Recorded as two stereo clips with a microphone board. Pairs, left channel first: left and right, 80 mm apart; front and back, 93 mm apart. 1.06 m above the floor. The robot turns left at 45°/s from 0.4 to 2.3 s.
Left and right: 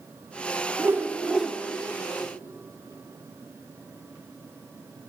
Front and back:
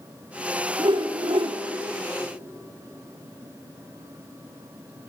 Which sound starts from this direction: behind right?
A whoosh, at 0.8 s.